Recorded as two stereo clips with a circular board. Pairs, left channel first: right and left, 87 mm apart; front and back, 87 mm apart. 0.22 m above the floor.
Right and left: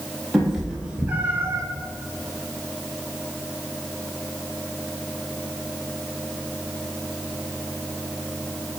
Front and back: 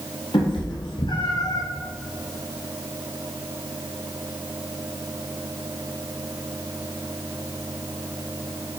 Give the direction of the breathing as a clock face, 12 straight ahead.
I don't hear breathing.